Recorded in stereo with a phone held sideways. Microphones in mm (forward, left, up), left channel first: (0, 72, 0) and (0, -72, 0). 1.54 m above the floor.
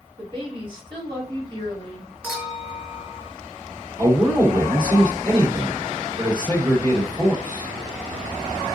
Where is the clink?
15° right (ahead or behind), 3 m.